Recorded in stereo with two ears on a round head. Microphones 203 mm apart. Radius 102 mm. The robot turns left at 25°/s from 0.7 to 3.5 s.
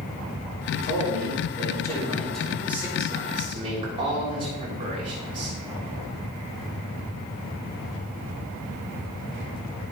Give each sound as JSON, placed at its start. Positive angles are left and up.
{"t": 0.7, "sound": "a man speaking", "azimuth_deg": 45, "distance_m": 3.5}